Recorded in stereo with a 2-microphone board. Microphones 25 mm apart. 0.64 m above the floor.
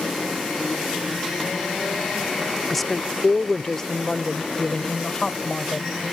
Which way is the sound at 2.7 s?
5° left (ahead or behind).